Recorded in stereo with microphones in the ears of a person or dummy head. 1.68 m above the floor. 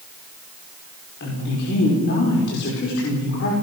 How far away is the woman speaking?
About 5.5 m.